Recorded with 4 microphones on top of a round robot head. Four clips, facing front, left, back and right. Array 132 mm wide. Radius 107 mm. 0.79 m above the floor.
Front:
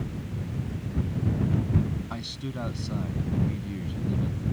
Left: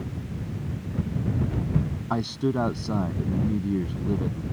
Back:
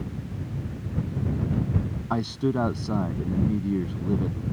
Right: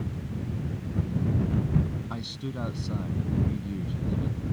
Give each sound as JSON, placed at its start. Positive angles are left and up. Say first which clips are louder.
{"t": 2.1, "sound": "a man speaking", "louder": "left 10 dB, back 11 dB", "azimuth_deg": 135}